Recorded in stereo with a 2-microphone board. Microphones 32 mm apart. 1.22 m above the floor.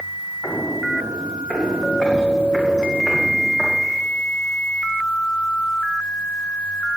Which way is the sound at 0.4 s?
20° right (ahead or behind).